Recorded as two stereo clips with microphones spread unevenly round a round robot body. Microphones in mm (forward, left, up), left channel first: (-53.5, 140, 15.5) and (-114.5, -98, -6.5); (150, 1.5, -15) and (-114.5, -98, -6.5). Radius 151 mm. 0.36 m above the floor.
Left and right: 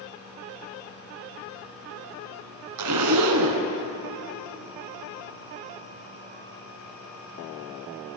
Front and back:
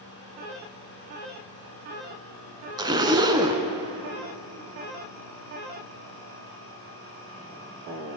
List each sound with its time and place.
2.8 s a zipper: 85° right, 1.1 m